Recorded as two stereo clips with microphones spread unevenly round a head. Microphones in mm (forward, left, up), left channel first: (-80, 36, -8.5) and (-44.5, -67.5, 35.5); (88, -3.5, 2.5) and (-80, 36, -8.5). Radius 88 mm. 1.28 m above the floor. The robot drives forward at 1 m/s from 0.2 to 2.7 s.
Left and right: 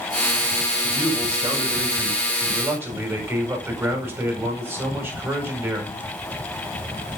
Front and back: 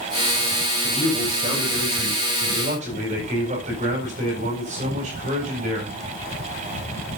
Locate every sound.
0.8 s a man speaking: 130° right, 7 m; by 6.0 s 140° right, 8.5 m